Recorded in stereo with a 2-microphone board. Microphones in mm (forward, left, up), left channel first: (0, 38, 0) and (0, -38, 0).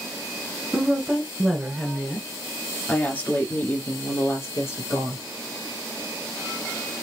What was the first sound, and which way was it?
A woman speaking, 10° right (ahead or behind).